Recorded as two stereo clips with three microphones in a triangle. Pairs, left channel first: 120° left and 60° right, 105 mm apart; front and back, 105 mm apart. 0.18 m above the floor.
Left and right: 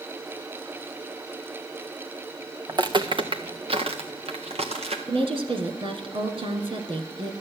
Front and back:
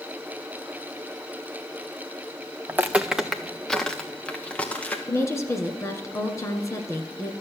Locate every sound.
2.7 s footsteps: 110° right, 0.8 m; by 5.0 s 75° right, 2 m
5.1 s a woman speaking: 55° right, 1.8 m